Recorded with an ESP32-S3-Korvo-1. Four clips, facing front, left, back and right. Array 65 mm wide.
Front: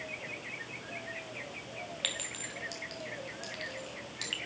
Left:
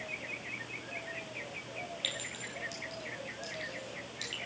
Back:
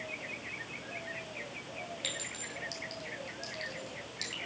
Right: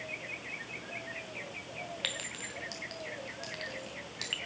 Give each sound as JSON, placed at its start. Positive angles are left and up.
{"t": 2.0, "sound": "a clink", "azimuth_deg": -65, "distance_m": 2.0}